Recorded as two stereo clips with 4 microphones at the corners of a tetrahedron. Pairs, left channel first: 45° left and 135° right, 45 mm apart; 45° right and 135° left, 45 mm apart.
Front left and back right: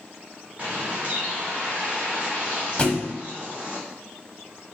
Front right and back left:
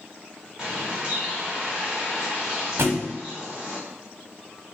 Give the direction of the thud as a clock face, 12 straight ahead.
8 o'clock.